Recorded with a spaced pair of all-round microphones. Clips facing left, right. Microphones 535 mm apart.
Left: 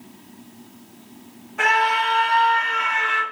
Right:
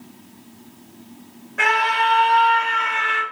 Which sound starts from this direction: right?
A scream, at 1.6 s.